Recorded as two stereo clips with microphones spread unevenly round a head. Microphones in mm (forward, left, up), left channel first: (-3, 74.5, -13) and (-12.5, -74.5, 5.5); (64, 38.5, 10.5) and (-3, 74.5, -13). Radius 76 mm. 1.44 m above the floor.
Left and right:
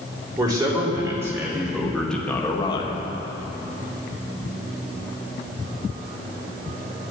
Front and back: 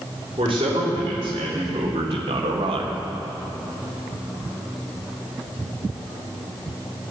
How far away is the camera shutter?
No camera shutter in this recording.